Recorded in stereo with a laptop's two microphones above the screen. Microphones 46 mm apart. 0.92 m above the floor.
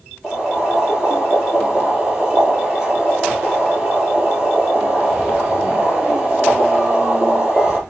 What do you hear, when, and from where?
0.2 s boiling: 10° right (ahead or behind), 4.5 m